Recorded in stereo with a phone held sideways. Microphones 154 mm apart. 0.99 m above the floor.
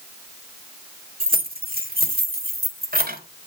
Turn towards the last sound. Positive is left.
turn(degrees=-80)